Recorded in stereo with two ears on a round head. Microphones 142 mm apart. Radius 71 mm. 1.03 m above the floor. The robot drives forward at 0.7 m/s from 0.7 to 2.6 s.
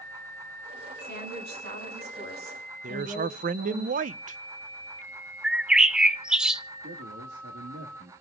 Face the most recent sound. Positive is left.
turn(degrees=-80)